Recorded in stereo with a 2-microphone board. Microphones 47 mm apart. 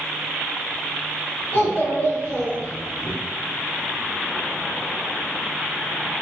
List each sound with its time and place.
1.5 s a child speaking: 50° left (ahead or behind), 1.1 m; by 3.1 s 60° left (ahead or behind), 1.5 m